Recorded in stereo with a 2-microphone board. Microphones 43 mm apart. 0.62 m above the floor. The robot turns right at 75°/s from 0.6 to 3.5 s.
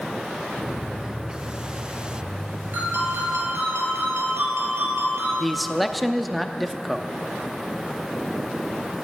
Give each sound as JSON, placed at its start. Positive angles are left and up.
{"t": 2.7, "sound": "a ringtone", "azimuth_deg": -135, "distance_m": 6.0}
{"t": 5.4, "sound": "a man speaking", "side_deg": 0, "distance_m": 0.6}